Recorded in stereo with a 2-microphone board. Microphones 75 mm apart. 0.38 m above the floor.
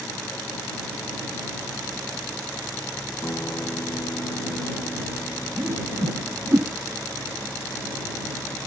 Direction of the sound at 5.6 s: 50° right (ahead or behind).